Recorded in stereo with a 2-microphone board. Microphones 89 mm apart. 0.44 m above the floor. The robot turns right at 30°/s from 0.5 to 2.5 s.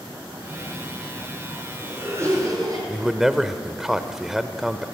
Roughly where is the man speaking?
Centre.